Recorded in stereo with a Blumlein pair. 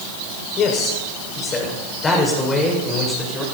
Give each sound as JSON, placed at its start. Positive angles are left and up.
{"t": 0.6, "sound": "a man speaking", "azimuth_deg": 30, "distance_m": 6.0}